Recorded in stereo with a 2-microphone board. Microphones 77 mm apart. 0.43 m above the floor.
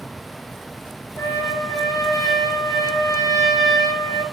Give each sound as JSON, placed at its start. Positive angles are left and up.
{"t": 1.2, "sound": "a trumpet", "side_deg": 55, "distance_m": 1.0}